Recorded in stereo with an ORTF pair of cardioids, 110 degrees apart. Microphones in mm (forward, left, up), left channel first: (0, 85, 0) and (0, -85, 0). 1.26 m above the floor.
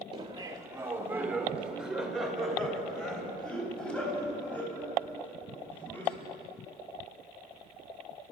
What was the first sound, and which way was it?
Laughter, 30° right.